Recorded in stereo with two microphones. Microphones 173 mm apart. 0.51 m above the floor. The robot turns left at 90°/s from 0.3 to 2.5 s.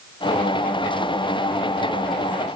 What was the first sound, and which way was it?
Only background noise.